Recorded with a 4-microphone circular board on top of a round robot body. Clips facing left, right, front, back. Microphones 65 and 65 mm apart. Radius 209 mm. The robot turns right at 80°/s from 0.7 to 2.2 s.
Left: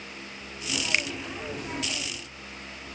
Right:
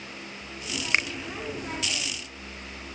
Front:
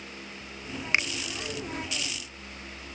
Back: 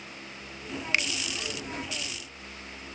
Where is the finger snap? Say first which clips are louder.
Right 3 dB, front 2 dB; 55° right, 0.7 m; by 1.1 s 40° right, 0.7 m.